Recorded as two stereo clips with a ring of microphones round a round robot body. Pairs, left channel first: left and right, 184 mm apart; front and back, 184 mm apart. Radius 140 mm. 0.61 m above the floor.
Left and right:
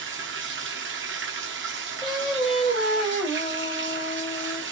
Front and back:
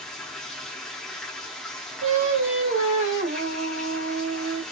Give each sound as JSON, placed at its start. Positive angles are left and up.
{"t": 0.0, "sound": "running water", "azimuth_deg": -90, "distance_m": 0.9}
{"t": 2.0, "sound": "singing", "azimuth_deg": 175, "distance_m": 2.0}